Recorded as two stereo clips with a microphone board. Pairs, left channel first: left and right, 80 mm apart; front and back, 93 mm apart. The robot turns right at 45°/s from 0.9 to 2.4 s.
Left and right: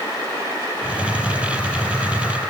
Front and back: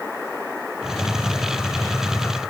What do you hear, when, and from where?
Only background noise.